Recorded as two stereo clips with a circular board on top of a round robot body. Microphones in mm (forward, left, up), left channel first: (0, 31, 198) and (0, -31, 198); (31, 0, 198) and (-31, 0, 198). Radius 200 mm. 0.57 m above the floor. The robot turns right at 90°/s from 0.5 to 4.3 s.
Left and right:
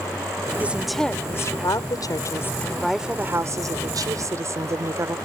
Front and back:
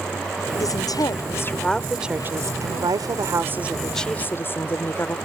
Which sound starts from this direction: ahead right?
A woman speaking, at 0.6 s.